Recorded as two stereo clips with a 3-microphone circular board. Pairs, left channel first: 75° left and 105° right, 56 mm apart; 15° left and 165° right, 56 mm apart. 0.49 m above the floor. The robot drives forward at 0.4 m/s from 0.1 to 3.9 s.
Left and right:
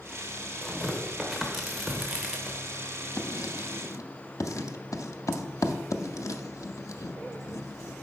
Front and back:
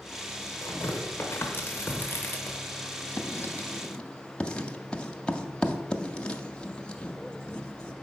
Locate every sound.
0.6 s tearing paper: 15° right, 1.4 m; by 2.6 s 35° right, 0.7 m
3.2 s writing: 60° left, 0.6 m; by 7.9 s 90° left, 0.5 m